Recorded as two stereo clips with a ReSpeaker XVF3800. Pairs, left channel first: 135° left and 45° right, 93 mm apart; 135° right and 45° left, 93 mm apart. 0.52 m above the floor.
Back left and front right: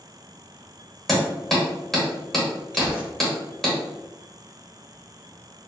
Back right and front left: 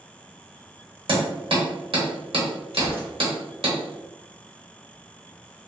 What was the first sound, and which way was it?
Hammering, 50° left.